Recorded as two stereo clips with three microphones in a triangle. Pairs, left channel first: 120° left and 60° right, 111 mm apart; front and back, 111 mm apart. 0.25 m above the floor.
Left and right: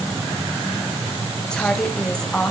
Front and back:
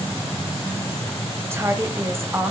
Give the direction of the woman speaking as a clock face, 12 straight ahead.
6 o'clock.